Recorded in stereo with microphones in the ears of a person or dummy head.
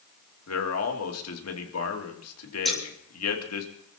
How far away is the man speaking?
About 2.5 m.